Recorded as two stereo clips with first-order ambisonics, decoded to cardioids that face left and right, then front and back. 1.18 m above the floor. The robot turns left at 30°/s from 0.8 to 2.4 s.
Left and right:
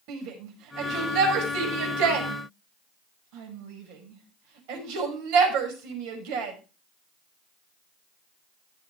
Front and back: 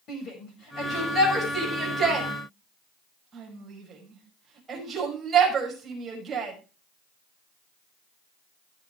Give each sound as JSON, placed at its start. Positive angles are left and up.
{"t": 0.1, "sound": "a shout", "azimuth_deg": -60, "distance_m": 5.5}